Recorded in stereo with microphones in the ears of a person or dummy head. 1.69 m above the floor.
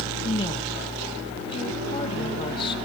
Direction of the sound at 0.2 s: 30° left (ahead or behind).